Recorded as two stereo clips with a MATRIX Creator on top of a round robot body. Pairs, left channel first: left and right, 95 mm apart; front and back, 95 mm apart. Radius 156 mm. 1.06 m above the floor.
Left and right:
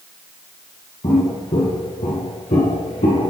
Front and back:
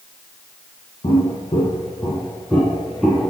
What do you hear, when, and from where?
1.0 s footsteps: 50° left, 1.8 m; by 3.3 s 95° left, 1.9 m